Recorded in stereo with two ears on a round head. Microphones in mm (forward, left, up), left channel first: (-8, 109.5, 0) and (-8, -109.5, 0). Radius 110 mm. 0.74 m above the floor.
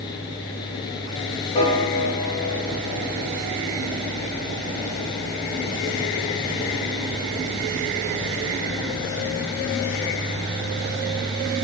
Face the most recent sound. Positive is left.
turn(degrees=25)  # may be behind; listen again after turning